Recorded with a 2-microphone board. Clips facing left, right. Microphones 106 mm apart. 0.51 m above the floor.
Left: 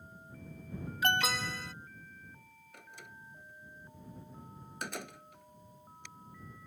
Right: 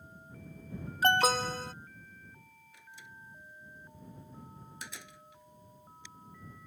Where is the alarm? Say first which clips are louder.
Right 6 dB; 40° right (ahead or behind).